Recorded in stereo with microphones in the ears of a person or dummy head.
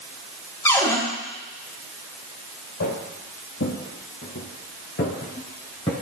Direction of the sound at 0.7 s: 20° left (ahead or behind).